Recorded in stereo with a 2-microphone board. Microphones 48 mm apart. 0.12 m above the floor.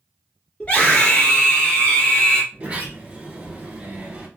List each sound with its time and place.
0.6 s a scream: 30° left (ahead or behind), 1.5 m
2.5 s a sliding door: 25° right (ahead or behind), 1.2 m